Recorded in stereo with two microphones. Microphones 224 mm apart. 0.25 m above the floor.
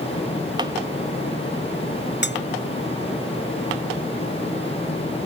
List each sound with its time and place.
2.2 s cutlery clinking: 50° left (ahead or behind)